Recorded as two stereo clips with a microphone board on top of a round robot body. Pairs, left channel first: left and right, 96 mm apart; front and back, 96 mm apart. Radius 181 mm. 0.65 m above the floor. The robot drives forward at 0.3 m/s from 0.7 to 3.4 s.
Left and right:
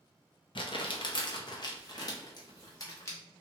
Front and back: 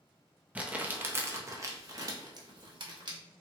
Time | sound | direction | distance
0.6 | crumpling | 105° left | 0.8 m
2.4 | a camera shutter | 130° left | 0.5 m